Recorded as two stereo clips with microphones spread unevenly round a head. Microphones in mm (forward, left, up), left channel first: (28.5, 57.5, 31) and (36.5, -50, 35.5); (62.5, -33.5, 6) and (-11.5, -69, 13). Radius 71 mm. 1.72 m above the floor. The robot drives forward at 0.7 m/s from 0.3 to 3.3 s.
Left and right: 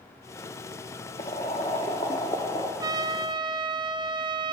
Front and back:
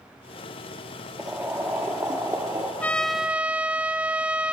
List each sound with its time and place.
1.2 s boiling: 130° left, 1.5 m; by 2.7 s 155° left, 2 m
2.8 s a trumpet: 45° right, 0.6 m; by 4.5 s 95° right, 0.6 m